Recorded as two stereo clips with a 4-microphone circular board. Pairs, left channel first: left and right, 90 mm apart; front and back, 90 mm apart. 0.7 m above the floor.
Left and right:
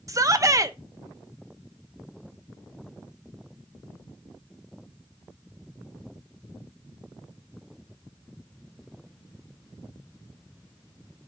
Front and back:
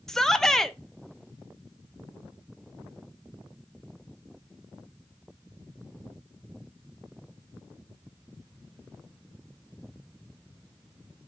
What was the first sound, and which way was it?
A shout, 80° right.